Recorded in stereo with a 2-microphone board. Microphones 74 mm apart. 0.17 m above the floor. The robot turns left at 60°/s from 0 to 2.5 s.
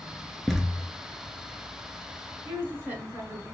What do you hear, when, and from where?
0.5 s a thud: centre (ahead or behind), 0.6 m; by 0.8 s 20° right (ahead or behind), 0.6 m
2.5 s a woman speaking: 25° right (ahead or behind), 1.5 m; by 3.5 s 30° right (ahead or behind), 1.5 m